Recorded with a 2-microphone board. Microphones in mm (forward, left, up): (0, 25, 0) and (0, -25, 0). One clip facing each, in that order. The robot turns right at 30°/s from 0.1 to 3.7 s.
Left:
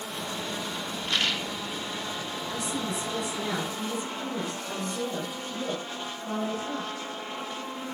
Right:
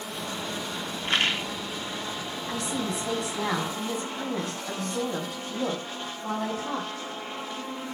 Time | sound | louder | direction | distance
1.0 | a rattle | right 3 dB | 35° right (ahead or behind) | 1.5 m
2.5 | a woman speaking | right 2 dB | 110° right | 6 m